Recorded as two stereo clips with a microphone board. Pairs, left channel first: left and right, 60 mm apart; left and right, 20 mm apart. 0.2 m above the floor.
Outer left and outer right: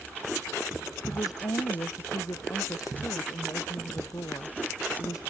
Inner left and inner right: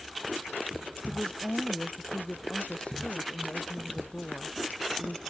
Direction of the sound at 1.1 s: 70° left (ahead or behind).